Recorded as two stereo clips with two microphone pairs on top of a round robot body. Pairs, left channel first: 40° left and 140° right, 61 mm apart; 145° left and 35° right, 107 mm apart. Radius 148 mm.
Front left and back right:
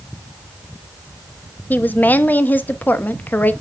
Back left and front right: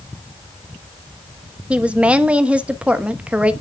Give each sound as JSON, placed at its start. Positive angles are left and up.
{"t": 1.7, "sound": "a woman speaking", "azimuth_deg": 35, "distance_m": 1.1}